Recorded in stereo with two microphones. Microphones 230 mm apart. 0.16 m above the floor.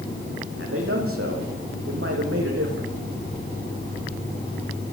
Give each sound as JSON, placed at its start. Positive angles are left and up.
{"t": 0.6, "sound": "a man speaking", "side_deg": -65, "distance_m": 9.0}